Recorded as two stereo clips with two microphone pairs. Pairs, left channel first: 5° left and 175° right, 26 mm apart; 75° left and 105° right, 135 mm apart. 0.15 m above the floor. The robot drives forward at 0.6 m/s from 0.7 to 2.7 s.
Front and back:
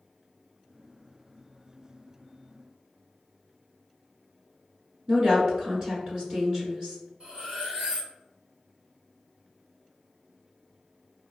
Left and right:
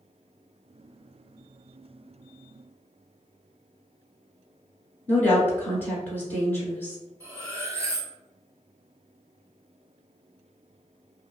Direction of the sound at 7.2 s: 165° right.